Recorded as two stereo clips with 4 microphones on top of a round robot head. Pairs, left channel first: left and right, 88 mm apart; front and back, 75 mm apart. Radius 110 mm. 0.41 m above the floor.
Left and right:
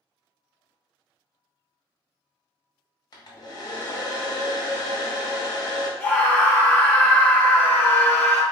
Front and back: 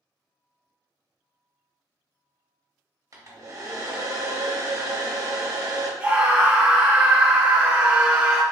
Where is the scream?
130° left, 0.8 m.